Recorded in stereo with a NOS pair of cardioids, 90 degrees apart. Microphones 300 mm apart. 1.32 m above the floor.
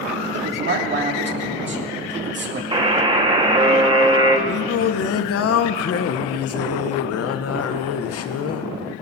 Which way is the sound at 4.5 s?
50° left.